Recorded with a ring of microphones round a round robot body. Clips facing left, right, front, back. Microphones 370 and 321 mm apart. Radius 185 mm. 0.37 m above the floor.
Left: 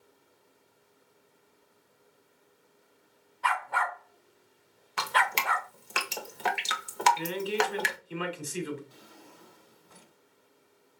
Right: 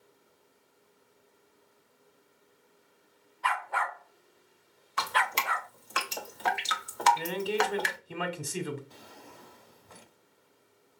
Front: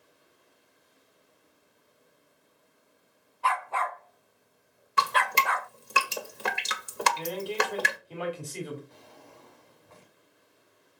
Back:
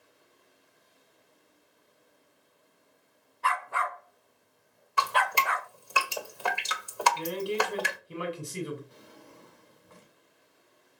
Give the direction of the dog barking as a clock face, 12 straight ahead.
8 o'clock.